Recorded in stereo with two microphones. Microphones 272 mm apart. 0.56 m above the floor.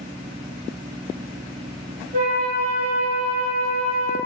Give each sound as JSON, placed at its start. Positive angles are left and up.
{"t": 2.1, "sound": "a flute", "side_deg": -40, "distance_m": 2.0}